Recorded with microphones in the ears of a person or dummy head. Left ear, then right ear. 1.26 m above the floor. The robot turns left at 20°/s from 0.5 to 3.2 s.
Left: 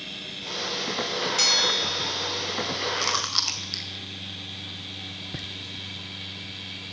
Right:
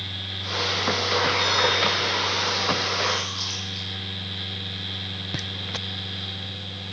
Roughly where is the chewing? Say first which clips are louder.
Even; left.